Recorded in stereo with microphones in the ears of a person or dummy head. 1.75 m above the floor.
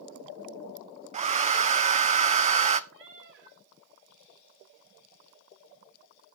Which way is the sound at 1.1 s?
30° right (ahead or behind).